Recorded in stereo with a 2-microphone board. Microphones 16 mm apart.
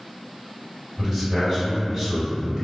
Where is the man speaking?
35° right (ahead or behind), 1.8 m.